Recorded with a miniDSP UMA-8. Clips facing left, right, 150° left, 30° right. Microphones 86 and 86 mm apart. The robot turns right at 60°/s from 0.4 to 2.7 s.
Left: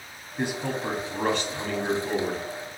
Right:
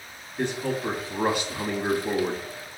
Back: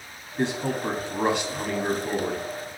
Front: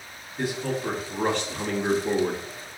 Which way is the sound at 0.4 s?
150° left.